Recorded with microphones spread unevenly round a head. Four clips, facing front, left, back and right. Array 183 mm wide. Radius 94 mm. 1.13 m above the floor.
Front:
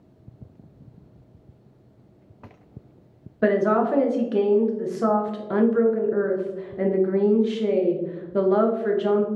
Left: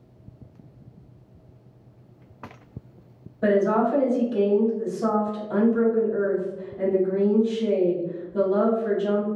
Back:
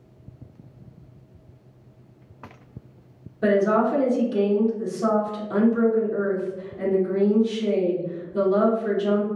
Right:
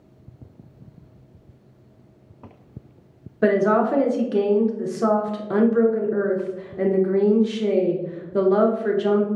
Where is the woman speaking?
60° right, 0.6 m.